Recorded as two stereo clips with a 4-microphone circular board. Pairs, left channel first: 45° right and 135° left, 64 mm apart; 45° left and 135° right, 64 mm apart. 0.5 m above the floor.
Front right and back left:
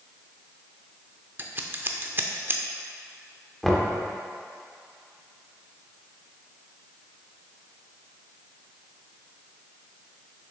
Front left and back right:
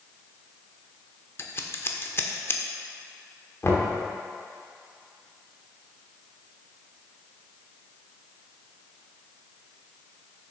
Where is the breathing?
No breathing in this recording.